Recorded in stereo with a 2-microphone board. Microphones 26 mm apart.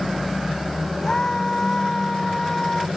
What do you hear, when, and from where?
1.0 s a scream: 20° left (ahead or behind); by 2.9 s 25° left (ahead or behind)